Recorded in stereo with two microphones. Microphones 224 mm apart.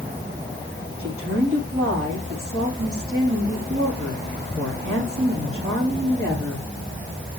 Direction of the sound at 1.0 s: 80° right.